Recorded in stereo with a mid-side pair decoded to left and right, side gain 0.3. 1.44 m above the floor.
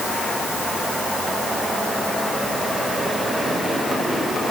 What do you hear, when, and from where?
Only background noise.